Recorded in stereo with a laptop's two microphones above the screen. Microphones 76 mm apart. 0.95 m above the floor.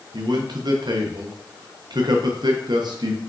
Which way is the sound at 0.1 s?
65° right (ahead or behind).